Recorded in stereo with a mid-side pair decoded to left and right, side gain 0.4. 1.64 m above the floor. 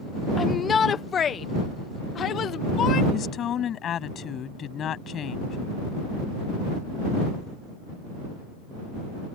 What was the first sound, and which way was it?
A shout, 45° left.